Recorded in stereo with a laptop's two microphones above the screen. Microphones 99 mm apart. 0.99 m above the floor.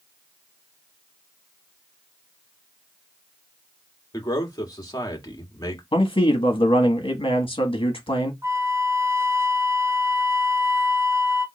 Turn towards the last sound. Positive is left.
turn(degrees=-30)  # may be behind; listen again after turning